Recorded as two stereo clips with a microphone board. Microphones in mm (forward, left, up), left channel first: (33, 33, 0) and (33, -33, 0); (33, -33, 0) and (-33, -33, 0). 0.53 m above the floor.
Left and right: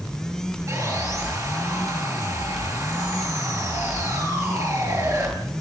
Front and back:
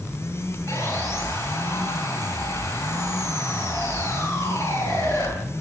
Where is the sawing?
50° right, 9.5 m.